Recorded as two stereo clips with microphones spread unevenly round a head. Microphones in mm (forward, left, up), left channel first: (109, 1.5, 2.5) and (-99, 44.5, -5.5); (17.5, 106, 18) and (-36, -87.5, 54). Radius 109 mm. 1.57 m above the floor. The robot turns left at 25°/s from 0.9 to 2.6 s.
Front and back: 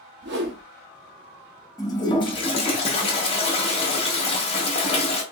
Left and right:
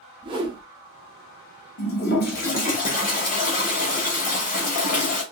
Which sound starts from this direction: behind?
A whoosh, at 0.2 s.